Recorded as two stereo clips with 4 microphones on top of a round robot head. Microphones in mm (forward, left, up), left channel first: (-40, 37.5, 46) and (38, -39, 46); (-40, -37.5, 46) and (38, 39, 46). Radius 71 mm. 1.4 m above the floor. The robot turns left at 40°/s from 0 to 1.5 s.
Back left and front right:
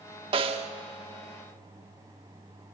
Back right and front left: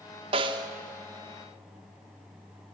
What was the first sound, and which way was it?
A snare drum, straight ahead.